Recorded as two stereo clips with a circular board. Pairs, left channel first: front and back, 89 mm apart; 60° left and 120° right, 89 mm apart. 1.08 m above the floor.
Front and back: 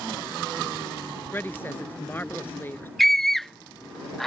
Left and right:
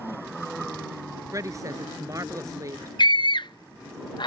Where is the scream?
85° left.